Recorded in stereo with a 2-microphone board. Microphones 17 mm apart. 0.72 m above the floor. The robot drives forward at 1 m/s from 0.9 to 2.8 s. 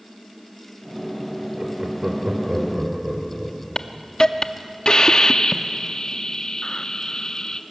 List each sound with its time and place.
1.6 s laughter: 65° right (ahead or behind), 3 m; by 3.6 s 50° right (ahead or behind), 3.5 m
3.8 s a hiss: 50° left (ahead or behind), 0.8 m